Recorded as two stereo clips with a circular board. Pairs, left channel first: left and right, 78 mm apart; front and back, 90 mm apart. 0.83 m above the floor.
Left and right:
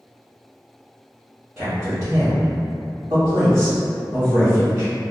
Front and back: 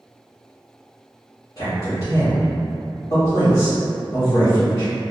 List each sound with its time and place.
1.6 s a man speaking: 40° right, 1.1 m